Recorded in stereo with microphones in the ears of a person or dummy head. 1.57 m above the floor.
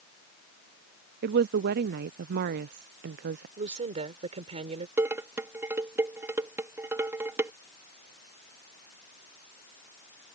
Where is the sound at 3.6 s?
35° right (ahead or behind).